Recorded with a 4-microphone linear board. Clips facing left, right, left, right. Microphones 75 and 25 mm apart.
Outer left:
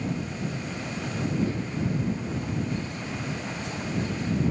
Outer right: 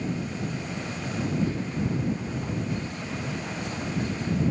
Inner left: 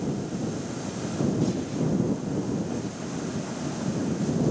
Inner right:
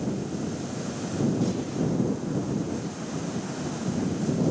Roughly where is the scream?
I don't hear a scream.